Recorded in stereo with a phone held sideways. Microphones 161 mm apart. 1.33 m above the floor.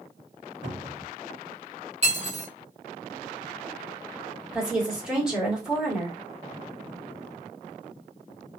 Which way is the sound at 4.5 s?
5° right (ahead or behind).